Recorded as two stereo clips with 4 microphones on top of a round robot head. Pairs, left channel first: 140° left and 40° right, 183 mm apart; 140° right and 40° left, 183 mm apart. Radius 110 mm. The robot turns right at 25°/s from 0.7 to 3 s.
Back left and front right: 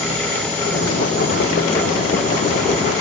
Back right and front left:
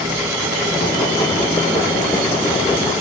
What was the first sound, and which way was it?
Only background noise.